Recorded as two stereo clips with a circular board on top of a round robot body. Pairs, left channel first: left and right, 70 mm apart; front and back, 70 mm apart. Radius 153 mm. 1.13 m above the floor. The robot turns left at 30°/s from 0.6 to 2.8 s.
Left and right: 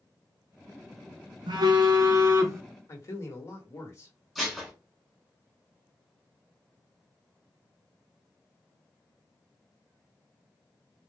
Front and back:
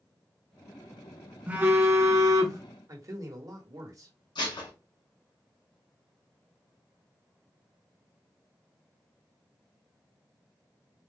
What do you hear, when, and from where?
1.5 s a phone buzzing: 110° right, 0.8 m; by 2.6 s 145° right, 0.8 m
2.9 s a man speaking: 140° left, 1.6 m
4.3 s dishes clattering: 5° right, 1.7 m